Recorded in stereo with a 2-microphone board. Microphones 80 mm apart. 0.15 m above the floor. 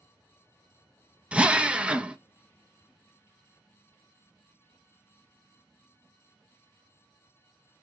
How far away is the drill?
About 0.7 m.